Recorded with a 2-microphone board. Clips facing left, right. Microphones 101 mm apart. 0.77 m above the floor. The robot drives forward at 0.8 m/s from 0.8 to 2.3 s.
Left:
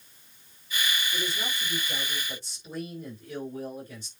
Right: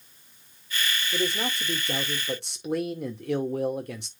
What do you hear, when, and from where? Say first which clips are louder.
1.1 s a man speaking: right 5 dB; 65° right (ahead or behind), 2.5 m; by 4.1 s 75° right (ahead or behind), 2.5 m